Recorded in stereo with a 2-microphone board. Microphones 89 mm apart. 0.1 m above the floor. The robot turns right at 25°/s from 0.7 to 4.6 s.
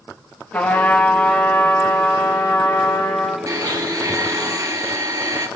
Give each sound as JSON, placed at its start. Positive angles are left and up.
{"t": 0.5, "sound": "a trumpet", "azimuth_deg": 25, "distance_m": 2.5}
{"t": 3.5, "sound": "a blender", "side_deg": -40, "distance_m": 1.4}